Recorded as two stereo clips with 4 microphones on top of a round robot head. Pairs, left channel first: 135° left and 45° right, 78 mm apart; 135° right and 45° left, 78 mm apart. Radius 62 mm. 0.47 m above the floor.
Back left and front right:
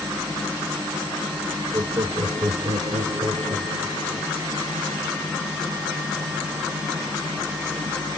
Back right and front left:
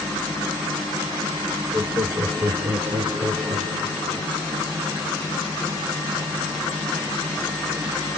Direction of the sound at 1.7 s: 15° right.